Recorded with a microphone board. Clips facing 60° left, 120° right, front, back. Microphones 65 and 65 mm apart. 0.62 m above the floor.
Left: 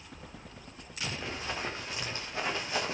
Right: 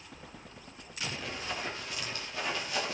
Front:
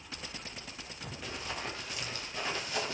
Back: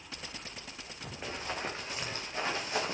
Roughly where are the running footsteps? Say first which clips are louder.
Left 1 dB, back 3 dB; behind left.